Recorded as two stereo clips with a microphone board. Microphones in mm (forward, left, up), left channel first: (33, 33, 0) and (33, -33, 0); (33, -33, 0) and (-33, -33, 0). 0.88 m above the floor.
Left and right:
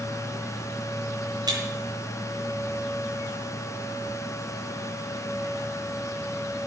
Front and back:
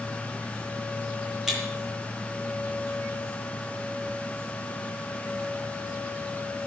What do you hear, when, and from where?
1.5 s breaking glass: 95° right, 7.5 m